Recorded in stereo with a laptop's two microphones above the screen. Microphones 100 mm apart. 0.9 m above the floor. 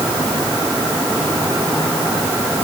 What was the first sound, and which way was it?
Only background noise.